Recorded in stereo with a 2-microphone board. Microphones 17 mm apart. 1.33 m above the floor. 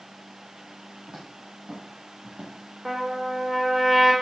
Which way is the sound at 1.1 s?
75° right (ahead or behind).